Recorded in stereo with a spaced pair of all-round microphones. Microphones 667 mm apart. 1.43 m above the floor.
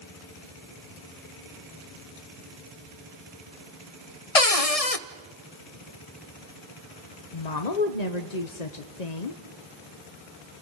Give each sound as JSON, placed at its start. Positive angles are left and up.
{"t": 4.3, "sound": "a cupboard door", "side_deg": 60, "distance_m": 0.9}
{"t": 7.3, "sound": "a woman speaking", "side_deg": 75, "distance_m": 1.2}